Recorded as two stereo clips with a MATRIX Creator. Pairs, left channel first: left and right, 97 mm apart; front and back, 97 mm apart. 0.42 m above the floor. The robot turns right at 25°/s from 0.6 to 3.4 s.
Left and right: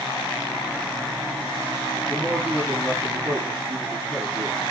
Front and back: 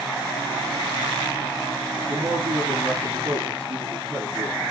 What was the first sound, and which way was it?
A man speaking, 170° right.